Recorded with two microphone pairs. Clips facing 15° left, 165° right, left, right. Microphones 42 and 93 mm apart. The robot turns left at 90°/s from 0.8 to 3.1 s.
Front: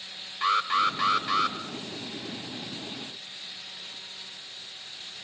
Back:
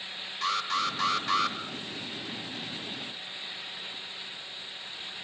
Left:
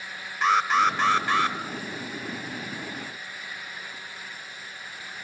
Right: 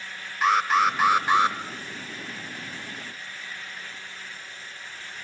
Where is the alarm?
5° right, 1.5 m; by 1.6 s 75° right, 1.5 m.